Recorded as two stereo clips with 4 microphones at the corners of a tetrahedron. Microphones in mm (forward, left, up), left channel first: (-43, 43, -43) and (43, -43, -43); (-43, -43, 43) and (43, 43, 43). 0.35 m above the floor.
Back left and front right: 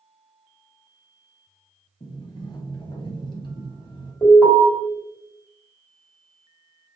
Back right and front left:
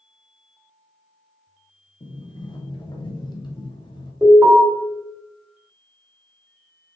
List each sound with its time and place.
2.0 s a sliding door: straight behind, 0.6 m
4.2 s an alarm: 100° left, 1.7 m